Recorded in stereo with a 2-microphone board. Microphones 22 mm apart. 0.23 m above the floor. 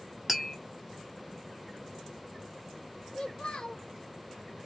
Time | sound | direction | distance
0.3 | tapping | 10° right (ahead or behind) | 1.3 m
3.1 | a child speaking | 50° left (ahead or behind) | 1.0 m